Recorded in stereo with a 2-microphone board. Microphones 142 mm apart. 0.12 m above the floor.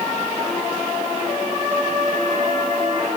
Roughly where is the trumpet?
Centre.